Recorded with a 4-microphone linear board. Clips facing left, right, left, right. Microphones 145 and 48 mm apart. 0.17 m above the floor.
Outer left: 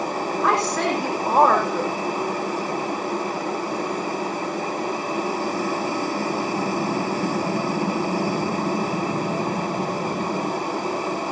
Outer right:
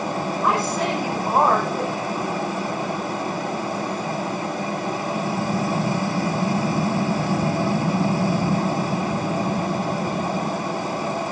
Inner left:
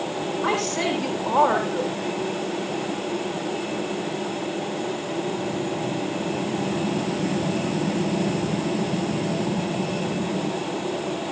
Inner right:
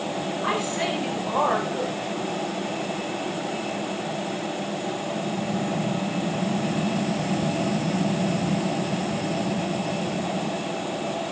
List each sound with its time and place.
0.4 s a woman speaking: 80° left, 8.5 m